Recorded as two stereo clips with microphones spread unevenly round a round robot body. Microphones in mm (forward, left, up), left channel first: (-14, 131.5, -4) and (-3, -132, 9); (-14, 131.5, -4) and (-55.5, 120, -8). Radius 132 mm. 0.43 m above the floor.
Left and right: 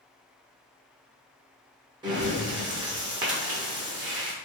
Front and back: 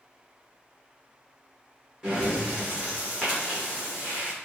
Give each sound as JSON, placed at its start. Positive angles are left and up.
{"t": 2.0, "sound": "breathing", "azimuth_deg": -140, "distance_m": 1.2}